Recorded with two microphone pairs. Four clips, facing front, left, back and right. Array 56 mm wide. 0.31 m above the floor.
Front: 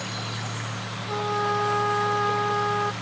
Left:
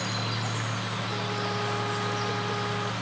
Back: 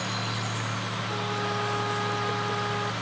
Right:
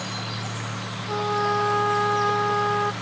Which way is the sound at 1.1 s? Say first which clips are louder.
Right 11 dB, front 7 dB; 55° right.